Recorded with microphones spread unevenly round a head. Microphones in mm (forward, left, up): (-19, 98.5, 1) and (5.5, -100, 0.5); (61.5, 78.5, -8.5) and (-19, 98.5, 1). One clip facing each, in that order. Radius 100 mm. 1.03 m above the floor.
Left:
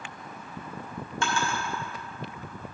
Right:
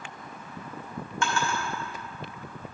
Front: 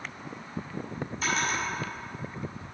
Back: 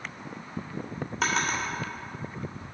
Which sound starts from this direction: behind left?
A drawer, at 1.2 s.